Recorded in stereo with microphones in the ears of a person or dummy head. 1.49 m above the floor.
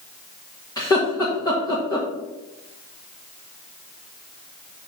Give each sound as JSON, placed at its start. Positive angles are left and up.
{"t": 0.8, "sound": "laughter", "side_deg": 20, "distance_m": 1.7}